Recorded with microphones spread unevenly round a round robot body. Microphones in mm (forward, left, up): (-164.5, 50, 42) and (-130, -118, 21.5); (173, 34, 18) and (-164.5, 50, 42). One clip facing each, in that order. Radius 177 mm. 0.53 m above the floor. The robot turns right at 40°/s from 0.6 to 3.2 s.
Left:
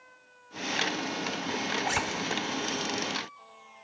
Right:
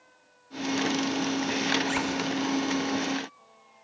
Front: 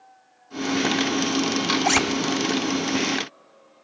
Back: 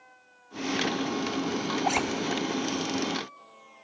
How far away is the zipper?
About 1.0 m.